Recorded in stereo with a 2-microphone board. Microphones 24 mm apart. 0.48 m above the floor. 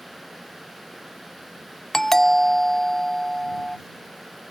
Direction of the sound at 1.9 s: 15° left (ahead or behind).